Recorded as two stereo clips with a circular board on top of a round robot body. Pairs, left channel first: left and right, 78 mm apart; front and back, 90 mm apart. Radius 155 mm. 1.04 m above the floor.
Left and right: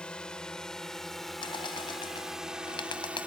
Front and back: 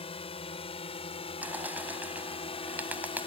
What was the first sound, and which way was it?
A drone, 10° left.